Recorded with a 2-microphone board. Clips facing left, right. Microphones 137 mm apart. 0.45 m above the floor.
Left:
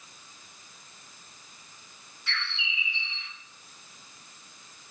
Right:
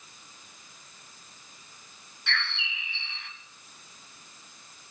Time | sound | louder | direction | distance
2.3 | a bird | right 3 dB | 80° right | 1.3 m